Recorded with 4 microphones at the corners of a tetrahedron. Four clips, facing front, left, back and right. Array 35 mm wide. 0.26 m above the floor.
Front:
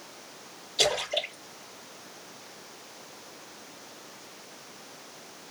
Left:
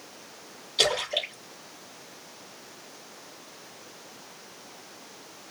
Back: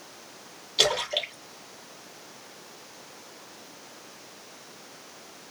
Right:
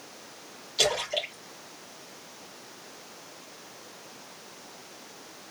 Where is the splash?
155° left, 1.9 m.